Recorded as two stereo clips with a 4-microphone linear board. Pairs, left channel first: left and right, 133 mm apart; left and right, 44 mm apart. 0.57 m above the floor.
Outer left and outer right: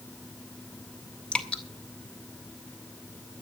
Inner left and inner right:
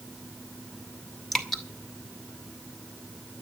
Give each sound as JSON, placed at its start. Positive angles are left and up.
{"t": 1.3, "sound": "dripping", "side_deg": 5, "distance_m": 2.0}